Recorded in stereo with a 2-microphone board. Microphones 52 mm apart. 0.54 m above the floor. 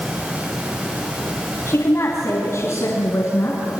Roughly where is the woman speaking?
Left.